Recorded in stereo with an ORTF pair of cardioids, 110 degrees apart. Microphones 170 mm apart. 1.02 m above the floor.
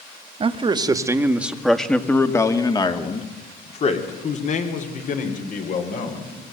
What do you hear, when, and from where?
0.4 s a man speaking: 35° right, 2 m; by 6.3 s 55° left, 5 m